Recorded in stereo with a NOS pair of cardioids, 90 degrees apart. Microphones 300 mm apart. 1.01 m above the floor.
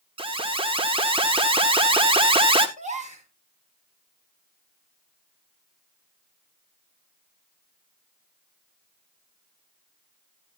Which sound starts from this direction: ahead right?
A gasp, at 2.8 s.